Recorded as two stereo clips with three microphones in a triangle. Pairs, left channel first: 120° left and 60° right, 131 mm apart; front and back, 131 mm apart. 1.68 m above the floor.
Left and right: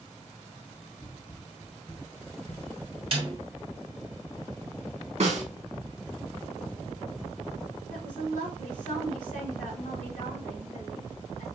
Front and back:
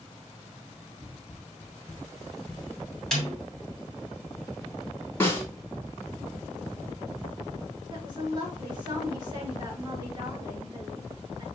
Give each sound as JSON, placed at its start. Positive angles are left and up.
{"t": 1.0, "sound": "running footsteps", "azimuth_deg": 100, "distance_m": 2.5}
{"t": 3.1, "sound": "a snare drum", "azimuth_deg": -85, "distance_m": 2.0}
{"t": 5.2, "sound": "a snare drum", "azimuth_deg": -70, "distance_m": 1.9}
{"t": 7.9, "sound": "a woman speaking", "azimuth_deg": 120, "distance_m": 2.5}